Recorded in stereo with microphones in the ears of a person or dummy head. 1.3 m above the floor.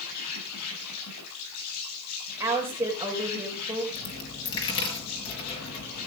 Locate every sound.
0.0 s an insect: 80° left, 9.5 m
2.4 s a woman speaking: 10° right (ahead or behind), 5.5 m
3.9 s a dropped coin: 30° left (ahead or behind), 5.5 m